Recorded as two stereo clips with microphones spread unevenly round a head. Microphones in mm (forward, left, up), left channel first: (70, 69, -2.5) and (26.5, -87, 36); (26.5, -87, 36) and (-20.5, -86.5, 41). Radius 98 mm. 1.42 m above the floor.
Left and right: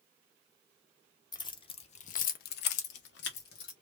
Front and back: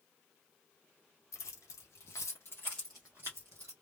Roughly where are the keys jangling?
Ahead.